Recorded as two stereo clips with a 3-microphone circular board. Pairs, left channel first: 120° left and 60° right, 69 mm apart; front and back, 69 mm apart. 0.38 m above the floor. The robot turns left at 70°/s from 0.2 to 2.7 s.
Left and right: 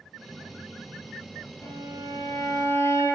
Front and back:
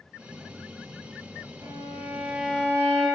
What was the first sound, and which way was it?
A violin, 145° left.